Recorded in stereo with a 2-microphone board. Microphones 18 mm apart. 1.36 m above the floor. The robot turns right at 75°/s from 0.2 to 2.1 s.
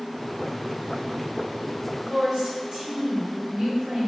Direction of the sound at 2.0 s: 60° right (ahead or behind).